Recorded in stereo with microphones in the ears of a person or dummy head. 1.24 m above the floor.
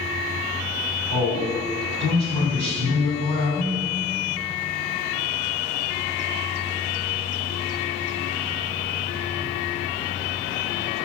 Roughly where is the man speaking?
Right.